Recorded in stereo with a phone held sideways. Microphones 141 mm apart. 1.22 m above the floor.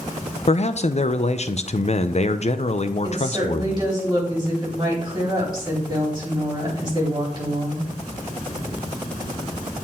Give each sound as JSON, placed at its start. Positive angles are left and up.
{"t": 0.5, "sound": "a man speaking", "side_deg": 50, "distance_m": 0.5}
{"t": 3.0, "sound": "a woman speaking", "side_deg": -30, "distance_m": 4.0}